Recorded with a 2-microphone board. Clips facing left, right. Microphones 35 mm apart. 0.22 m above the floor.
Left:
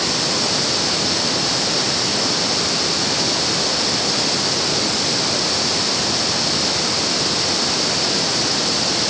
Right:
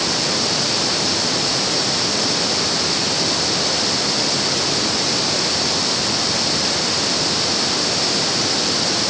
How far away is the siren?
No siren in this recording.